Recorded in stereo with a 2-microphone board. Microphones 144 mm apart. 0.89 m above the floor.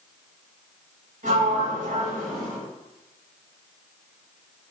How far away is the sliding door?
About 1.8 m.